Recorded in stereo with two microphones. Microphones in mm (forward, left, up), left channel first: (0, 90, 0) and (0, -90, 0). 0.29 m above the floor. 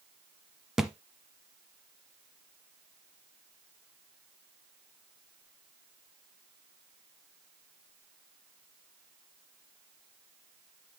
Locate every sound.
0.8 s a thud: 5° right (ahead or behind), 0.9 m